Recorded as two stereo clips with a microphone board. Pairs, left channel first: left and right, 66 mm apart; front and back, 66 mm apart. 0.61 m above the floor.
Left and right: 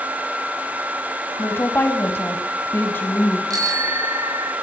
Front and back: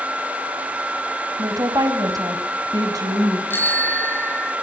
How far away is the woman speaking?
About 3 m.